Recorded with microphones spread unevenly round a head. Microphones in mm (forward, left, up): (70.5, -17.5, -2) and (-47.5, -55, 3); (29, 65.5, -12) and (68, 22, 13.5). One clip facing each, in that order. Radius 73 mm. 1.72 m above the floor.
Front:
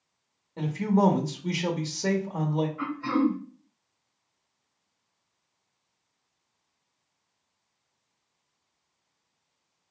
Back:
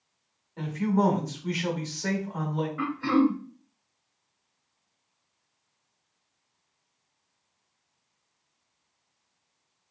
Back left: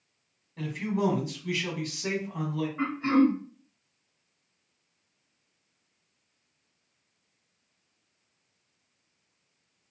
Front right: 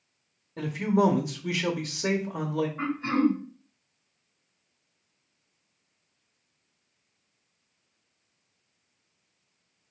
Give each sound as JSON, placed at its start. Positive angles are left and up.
{"t": 0.6, "sound": "a man speaking", "azimuth_deg": -35, "distance_m": 0.6}
{"t": 2.8, "sound": "throat clearing", "azimuth_deg": -145, "distance_m": 0.9}